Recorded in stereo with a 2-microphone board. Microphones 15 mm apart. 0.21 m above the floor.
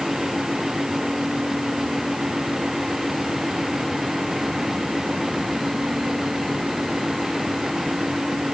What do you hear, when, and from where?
Only background noise.